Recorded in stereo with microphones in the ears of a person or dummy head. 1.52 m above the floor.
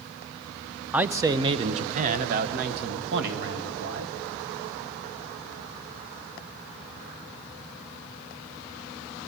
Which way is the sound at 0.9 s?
10° right (ahead or behind).